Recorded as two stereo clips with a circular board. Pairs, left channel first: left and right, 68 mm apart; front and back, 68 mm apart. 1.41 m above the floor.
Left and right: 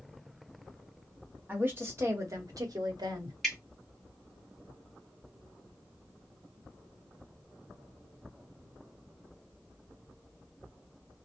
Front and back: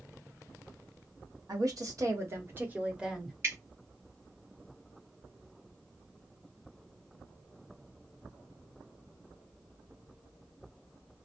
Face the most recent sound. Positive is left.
turn(degrees=175)